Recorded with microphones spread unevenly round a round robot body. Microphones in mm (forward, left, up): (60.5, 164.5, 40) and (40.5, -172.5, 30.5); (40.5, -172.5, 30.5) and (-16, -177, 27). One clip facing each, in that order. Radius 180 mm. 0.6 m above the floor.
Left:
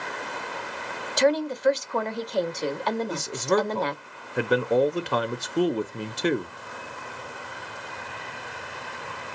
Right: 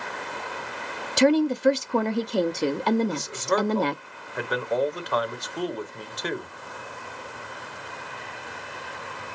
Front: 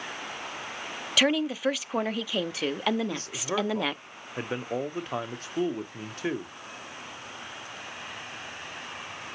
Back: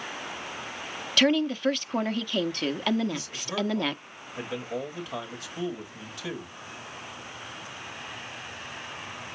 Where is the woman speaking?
80° right, 0.9 m.